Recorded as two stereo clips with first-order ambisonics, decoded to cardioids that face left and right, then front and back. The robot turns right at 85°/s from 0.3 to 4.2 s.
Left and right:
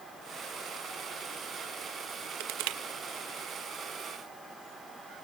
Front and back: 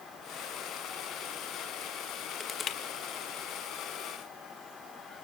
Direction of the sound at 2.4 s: 85° right.